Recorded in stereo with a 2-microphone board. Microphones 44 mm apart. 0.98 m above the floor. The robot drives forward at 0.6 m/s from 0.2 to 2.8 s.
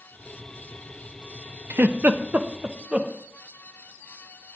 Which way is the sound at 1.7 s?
50° right (ahead or behind).